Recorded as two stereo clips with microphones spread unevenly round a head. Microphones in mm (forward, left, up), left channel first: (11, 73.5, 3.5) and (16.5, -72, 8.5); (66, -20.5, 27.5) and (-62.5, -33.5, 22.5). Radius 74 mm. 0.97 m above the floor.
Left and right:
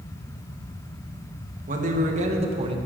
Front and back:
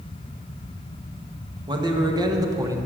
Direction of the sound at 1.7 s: 120° right.